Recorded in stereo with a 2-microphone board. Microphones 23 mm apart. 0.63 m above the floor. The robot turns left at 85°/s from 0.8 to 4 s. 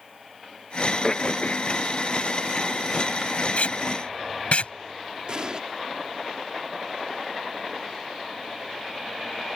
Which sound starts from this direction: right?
An explosion, at 5.3 s.